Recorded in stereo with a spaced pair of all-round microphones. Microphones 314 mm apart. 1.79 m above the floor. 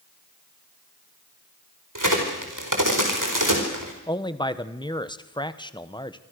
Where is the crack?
80° right, 4.5 m.